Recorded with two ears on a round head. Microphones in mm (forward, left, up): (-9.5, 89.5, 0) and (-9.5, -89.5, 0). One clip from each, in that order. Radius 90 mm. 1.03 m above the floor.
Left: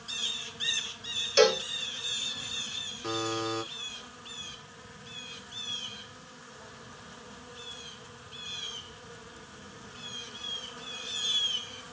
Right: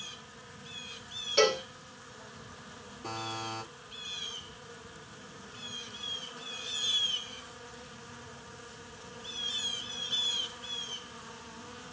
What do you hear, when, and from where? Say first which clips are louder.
1.4 s a cowbell: left 3 dB; 50° left (ahead or behind), 3.5 m
3.0 s a buzzer: left 4 dB; 35° left (ahead or behind), 3 m